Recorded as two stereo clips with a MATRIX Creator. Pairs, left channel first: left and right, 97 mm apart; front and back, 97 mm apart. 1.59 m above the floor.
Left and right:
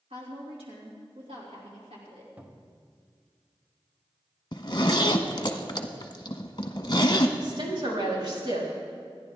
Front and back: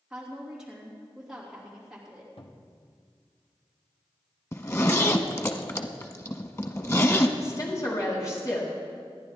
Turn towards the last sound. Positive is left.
turn(degrees=-55)